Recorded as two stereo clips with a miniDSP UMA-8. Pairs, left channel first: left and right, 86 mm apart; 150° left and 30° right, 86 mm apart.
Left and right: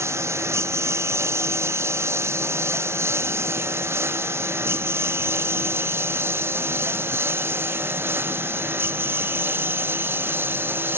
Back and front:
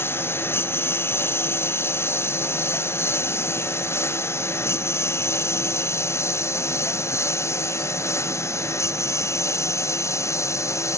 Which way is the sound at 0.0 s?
150° right.